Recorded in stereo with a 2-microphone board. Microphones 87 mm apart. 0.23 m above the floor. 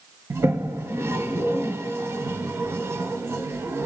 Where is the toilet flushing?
30° right (ahead or behind), 0.5 m.